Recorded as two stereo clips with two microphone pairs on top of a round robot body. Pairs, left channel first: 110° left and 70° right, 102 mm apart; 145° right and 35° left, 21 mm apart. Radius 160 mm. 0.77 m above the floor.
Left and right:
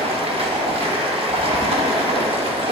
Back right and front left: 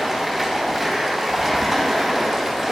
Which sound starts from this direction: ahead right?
Running water, at 0.0 s.